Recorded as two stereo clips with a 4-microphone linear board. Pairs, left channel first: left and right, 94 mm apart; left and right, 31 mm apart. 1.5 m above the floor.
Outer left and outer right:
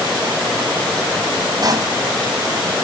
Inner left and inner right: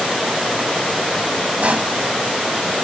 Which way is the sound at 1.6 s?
45° right (ahead or behind).